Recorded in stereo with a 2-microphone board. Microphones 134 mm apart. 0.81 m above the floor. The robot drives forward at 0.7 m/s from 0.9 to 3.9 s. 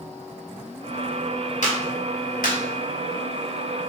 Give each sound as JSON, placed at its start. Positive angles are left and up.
{"t": 1.6, "sound": "a clap", "side_deg": 60, "distance_m": 1.2}